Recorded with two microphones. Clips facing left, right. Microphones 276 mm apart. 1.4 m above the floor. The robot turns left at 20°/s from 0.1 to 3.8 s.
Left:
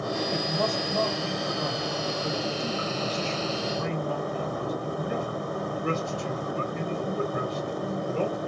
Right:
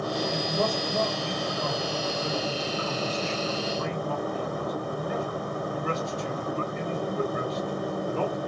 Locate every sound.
0.3 s a man speaking: 145° right, 2.5 m; by 8.4 s 150° left, 2.5 m